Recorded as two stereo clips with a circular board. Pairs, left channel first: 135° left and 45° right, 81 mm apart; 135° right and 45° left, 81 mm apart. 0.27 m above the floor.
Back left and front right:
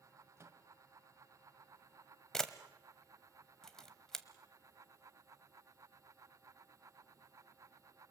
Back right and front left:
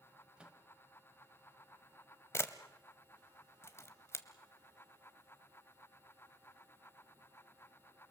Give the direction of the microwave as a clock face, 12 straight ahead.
1 o'clock.